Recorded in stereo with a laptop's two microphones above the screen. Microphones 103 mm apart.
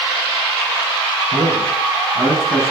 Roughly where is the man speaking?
Centre.